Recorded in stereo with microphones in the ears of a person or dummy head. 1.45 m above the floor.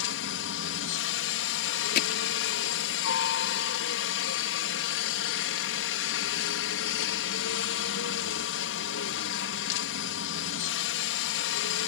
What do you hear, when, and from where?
0.0 s a helicopter: 65° left (ahead or behind)
1.9 s hammering: 55° left (ahead or behind)